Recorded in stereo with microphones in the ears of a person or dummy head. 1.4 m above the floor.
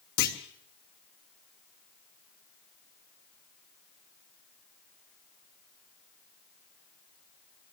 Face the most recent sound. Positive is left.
turn(degrees=50)  # may be behind; listen again after turning